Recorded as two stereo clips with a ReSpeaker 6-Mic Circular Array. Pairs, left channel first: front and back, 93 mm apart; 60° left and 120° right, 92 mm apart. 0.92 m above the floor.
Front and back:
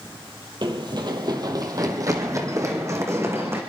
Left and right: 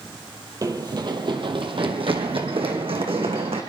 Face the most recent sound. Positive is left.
turn(degrees=-115)